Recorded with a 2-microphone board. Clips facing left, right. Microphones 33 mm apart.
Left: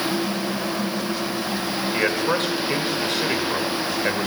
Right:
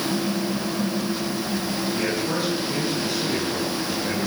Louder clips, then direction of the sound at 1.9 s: Left 6 dB; 60° left (ahead or behind).